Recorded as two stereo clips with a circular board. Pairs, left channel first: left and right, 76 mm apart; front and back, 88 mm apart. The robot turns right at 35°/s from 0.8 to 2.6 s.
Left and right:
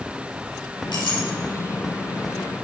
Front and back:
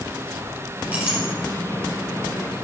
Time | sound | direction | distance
0.9 | a clink | 105° left | 3.5 m